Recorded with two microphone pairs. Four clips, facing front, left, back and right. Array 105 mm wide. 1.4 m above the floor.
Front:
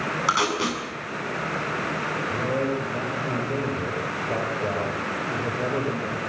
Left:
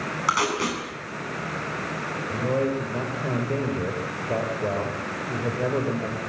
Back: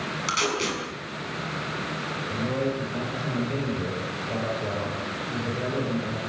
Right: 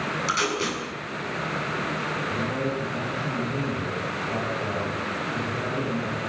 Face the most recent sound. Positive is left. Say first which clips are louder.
# left 6 dB, front 1 dB
turn(degrees=70)